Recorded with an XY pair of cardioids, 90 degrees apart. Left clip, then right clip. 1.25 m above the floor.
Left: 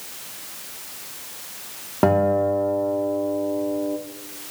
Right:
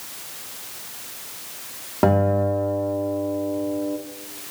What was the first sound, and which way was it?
A guitar, 15° left.